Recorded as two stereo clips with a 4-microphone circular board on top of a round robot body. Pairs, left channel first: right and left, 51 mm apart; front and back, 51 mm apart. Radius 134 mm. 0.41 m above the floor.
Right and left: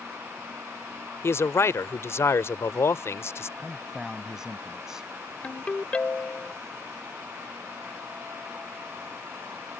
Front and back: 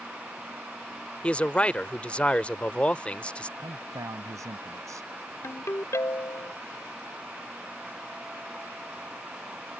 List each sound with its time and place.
1.2 s a man speaking: 65° right
3.6 s a man speaking: 170° left
5.4 s a ringtone: 25° right